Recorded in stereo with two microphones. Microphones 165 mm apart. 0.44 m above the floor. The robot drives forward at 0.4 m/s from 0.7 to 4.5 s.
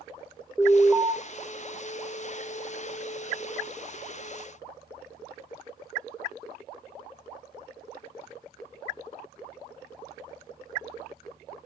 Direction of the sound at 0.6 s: 5° left (ahead or behind).